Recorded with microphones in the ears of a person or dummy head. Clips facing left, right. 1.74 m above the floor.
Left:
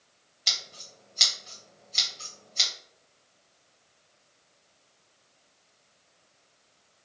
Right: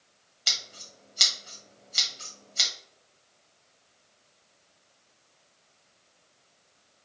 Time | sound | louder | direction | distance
0.5 | scissors | even | centre (ahead or behind) | 1.1 m